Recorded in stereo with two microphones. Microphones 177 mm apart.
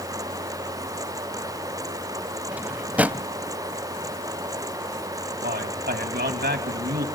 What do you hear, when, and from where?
2.5 s a drawer: 10° right (ahead or behind), 0.7 m
5.4 s a man speaking: 70° right (ahead or behind), 3 m